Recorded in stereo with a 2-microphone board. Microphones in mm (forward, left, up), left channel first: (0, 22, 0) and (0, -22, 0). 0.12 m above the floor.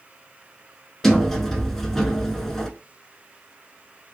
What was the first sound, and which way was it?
A sliding door, 10° left (ahead or behind).